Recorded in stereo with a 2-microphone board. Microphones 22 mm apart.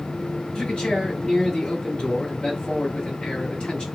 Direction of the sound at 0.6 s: 55° left (ahead or behind).